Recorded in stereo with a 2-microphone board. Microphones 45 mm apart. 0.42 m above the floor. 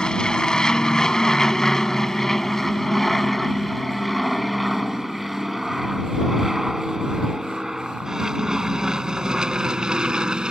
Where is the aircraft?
20° left (ahead or behind); by 10.5 s 20° right (ahead or behind).